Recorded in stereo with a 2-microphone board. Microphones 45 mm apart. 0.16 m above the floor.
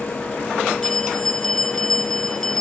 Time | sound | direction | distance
0.8 | a bell | 10° left (ahead or behind) | 1.6 m